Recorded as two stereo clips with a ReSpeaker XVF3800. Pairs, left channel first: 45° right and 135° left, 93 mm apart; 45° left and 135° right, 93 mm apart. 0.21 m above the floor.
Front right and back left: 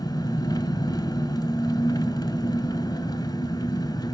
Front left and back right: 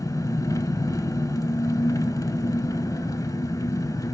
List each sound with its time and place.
0.0 s an engine running: 5° right, 0.8 m